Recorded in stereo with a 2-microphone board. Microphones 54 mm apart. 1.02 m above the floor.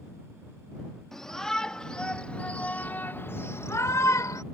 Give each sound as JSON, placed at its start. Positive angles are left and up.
{"t": 1.1, "sound": "a shout", "side_deg": 10}